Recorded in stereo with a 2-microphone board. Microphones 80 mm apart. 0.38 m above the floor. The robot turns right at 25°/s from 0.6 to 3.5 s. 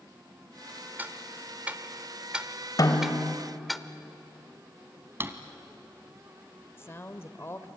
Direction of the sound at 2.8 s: 50° left (ahead or behind).